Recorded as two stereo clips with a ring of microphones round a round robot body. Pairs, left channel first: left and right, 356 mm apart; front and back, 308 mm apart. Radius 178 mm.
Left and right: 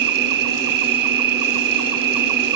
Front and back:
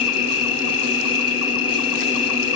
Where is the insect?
55° right, 1.1 m.